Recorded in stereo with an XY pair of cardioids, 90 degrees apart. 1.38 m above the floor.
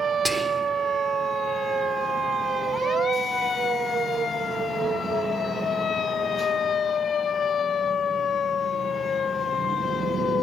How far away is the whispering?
About 1.4 m.